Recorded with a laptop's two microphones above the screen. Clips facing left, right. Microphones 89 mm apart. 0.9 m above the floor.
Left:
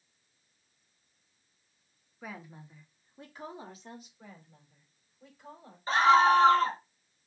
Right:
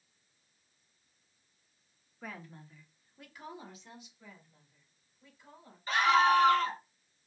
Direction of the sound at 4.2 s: 70° left (ahead or behind).